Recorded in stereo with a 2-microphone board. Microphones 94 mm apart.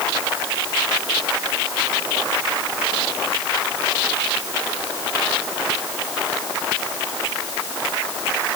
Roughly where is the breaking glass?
I don't hear breaking glass.